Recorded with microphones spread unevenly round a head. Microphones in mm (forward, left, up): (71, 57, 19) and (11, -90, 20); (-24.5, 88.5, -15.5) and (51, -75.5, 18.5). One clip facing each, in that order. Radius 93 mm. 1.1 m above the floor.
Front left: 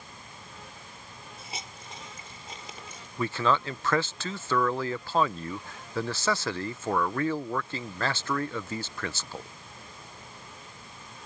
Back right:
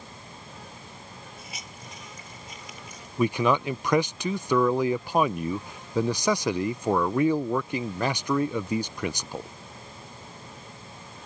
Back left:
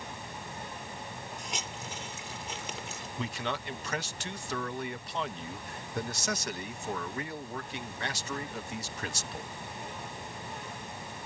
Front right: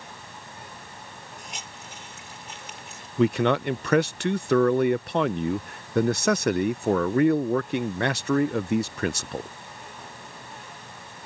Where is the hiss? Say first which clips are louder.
Front left 1 dB, back left 2 dB; 135° left.